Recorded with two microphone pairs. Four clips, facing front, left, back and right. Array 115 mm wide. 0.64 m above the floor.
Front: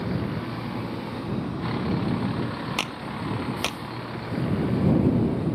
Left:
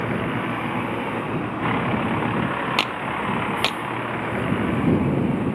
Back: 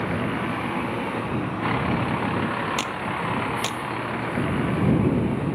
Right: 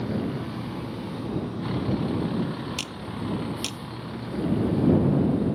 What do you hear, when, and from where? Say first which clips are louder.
0.0 s a vehicle: left 4 dB, back 3 dB; 120° left
2.8 s a clap: left 9 dB, back 4 dB; 95° left